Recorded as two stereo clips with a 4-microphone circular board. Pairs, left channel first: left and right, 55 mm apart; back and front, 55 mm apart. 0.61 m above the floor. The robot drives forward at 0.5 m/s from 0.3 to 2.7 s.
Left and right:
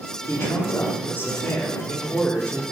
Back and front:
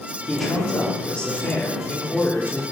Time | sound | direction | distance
0.3 | a man speaking | 95° left | 1.5 m